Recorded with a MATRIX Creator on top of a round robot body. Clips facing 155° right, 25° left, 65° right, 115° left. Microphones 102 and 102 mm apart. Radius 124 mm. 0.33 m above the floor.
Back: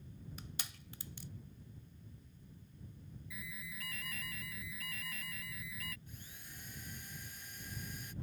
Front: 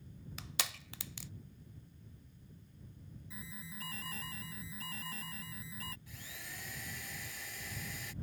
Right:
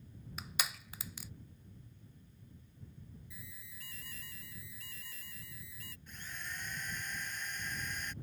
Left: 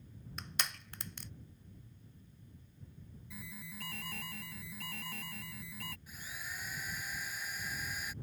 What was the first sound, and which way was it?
Crushing, 15° left.